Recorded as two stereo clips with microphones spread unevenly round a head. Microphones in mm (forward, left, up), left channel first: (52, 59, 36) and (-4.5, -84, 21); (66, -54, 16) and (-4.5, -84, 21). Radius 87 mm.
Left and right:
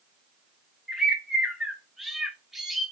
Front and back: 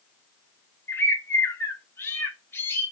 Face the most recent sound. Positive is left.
turn(degrees=-15)